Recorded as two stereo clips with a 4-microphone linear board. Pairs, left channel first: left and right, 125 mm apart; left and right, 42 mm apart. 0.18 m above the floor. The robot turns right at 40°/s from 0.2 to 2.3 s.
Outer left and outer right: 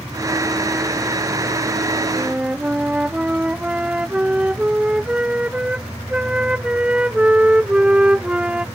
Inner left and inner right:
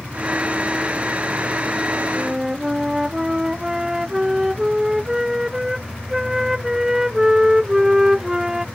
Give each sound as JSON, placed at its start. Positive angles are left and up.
{"t": 2.1, "sound": "a flute", "side_deg": -15}